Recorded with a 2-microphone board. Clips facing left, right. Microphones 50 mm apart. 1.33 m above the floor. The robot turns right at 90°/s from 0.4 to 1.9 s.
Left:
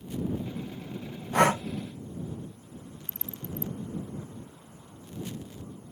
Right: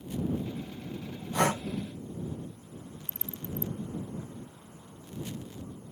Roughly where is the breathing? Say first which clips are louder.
Left 5 dB; left.